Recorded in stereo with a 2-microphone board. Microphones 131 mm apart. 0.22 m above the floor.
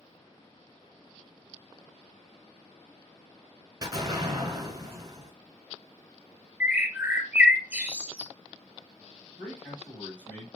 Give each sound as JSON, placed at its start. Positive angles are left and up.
{"t": 3.8, "sound": "an explosion", "side_deg": -30, "distance_m": 0.8}
{"t": 6.6, "sound": "a bird", "side_deg": -15, "distance_m": 0.8}
{"t": 9.4, "sound": "a man speaking", "side_deg": 10, "distance_m": 1.4}